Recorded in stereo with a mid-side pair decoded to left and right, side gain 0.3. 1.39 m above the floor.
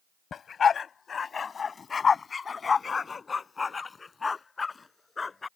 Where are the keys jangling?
No keys jangling in this recording.